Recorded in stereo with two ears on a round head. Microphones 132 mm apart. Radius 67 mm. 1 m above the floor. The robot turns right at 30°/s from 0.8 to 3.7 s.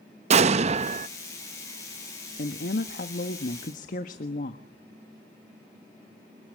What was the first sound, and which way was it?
An explosion, 45° right (ahead or behind).